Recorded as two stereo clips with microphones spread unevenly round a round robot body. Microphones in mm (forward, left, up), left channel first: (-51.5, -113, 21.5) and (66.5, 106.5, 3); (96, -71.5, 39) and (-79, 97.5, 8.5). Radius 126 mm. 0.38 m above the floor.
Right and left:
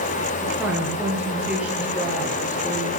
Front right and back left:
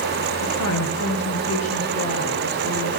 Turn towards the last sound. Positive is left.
turn(degrees=-20)